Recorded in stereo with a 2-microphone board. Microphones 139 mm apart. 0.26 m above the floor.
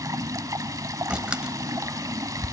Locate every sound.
0.0 s running water: 25° right (ahead or behind), 0.8 m
1.1 s a door slam: 10° right (ahead or behind), 0.7 m